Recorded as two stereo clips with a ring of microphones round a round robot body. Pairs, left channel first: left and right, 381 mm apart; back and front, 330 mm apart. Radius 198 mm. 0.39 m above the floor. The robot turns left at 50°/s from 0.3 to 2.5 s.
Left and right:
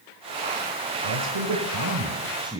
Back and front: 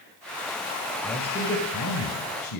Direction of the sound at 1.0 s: 95° right.